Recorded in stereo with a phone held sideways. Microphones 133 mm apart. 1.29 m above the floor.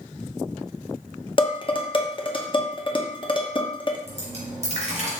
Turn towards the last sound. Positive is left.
turn(degrees=-50)  # may be behind; listen again after turning